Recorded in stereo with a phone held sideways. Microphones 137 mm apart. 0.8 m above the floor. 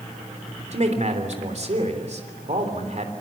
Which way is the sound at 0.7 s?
55° right (ahead or behind).